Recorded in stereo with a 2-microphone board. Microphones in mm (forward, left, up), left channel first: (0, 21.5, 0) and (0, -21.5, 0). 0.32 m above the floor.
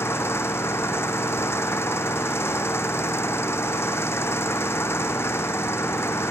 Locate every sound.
0.0 s an engine running: 85° left